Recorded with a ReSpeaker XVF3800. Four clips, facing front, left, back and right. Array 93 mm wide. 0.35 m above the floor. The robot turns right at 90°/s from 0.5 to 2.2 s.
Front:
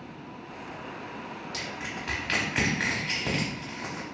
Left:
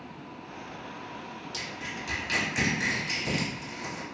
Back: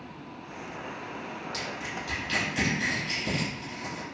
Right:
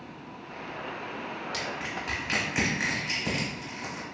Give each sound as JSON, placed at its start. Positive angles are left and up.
{"t": 1.5, "sound": "crushing", "azimuth_deg": -85, "distance_m": 0.9}